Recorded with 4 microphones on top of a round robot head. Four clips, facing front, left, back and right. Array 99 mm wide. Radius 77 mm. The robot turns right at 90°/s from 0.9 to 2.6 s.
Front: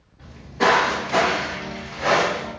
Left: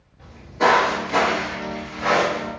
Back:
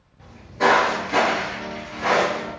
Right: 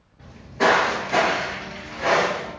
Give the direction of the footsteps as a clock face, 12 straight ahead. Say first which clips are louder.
Left 1 dB, even; 2 o'clock.